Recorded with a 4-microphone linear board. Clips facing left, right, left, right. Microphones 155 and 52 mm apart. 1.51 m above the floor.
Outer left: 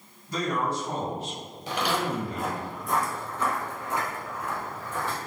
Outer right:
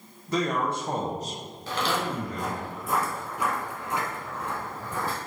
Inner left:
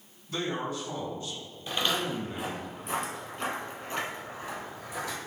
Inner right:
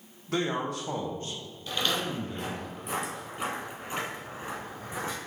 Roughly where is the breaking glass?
No breaking glass in this recording.